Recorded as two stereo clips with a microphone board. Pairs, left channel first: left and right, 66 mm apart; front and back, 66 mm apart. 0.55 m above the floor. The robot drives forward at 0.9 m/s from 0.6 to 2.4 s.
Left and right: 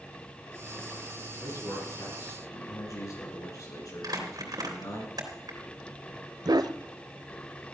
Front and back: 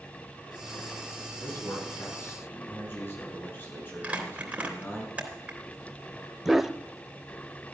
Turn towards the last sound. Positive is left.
turn(degrees=-95)